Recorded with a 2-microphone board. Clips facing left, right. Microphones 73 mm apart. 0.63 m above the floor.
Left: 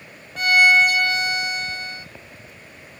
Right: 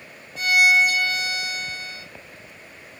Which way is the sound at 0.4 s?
50° left (ahead or behind).